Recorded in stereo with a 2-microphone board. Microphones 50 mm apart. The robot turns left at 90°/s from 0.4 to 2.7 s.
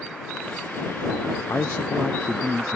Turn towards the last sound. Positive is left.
turn(degrees=-35)